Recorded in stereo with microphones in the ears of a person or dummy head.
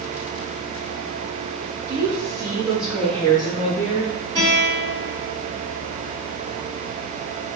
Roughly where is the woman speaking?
Centre.